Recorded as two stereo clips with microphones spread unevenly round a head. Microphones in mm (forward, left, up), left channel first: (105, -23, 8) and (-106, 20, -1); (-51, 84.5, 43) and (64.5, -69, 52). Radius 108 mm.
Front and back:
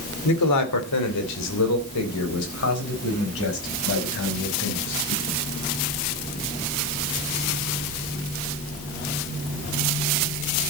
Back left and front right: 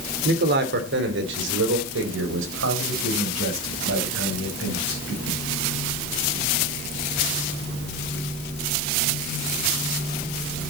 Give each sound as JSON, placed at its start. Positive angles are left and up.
{"t": 0.2, "sound": "a man speaking", "azimuth_deg": -15, "distance_m": 2.5}